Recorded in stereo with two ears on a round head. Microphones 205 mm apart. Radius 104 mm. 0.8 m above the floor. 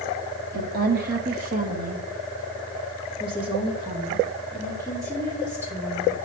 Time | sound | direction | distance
0.5 | a woman speaking | 40° right (ahead or behind) | 1.3 m